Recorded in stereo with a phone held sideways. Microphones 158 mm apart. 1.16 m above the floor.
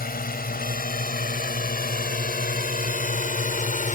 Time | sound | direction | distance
0.0 | a drone | 85° left | ?